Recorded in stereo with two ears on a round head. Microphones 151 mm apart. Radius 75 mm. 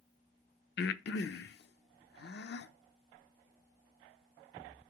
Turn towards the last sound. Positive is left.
turn(degrees=65)  # may be behind; listen again after turning